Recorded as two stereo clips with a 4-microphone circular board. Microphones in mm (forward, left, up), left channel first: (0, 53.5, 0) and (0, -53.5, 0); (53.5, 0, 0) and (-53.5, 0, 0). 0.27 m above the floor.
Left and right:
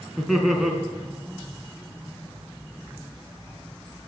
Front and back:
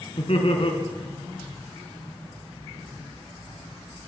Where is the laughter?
Straight ahead, 3.5 m.